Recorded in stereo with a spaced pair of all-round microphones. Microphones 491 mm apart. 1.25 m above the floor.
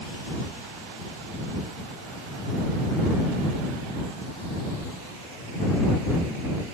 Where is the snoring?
I don't hear snoring.